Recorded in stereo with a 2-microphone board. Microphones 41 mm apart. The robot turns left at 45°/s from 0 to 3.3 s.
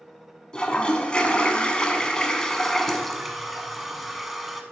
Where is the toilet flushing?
20° left (ahead or behind), 0.8 m; by 4.6 s 5° right (ahead or behind), 0.8 m.